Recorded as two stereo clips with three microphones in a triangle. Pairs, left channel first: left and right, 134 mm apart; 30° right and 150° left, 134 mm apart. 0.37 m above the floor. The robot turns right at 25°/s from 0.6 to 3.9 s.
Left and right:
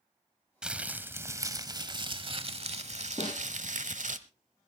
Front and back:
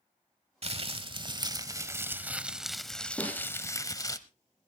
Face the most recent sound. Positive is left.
turn(degrees=65)